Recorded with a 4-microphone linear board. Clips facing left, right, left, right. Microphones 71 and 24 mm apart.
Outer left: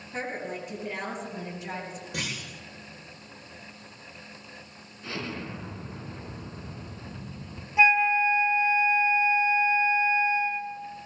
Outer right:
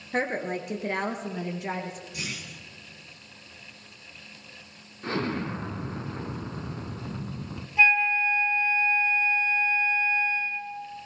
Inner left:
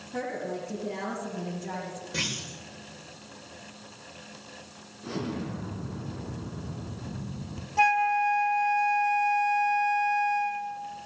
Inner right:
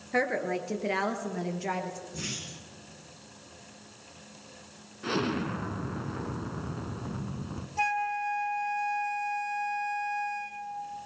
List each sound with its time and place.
0.1 s a woman speaking: 60° right (ahead or behind), 3 m
2.1 s a clunk: 75° left (ahead or behind), 8.5 m
5.0 s an explosion: 45° right (ahead or behind), 1.2 m
7.8 s a flute: 15° left (ahead or behind), 0.7 m